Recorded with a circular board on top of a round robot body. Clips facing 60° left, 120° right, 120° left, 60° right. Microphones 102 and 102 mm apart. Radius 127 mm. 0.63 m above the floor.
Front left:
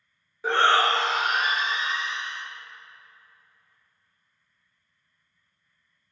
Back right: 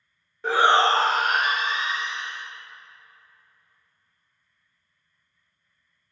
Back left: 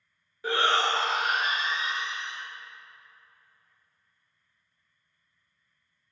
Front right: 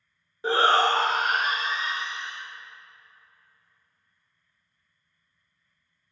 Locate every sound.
0.4 s a shout: 25° right, 0.6 m; by 2.4 s 105° right, 1.4 m